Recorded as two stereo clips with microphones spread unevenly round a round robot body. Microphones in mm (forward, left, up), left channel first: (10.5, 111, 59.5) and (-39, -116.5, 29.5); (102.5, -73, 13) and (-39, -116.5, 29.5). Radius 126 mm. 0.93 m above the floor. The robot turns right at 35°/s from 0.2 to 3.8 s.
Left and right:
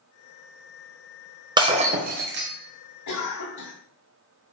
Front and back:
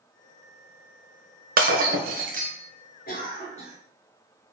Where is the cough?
60° left, 2.5 m; by 3.8 s 85° left, 2.5 m.